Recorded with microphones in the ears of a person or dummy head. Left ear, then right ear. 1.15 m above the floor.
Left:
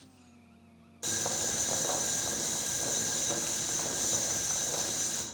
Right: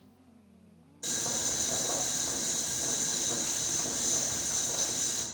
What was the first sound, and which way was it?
Boiling, 35° left (ahead or behind).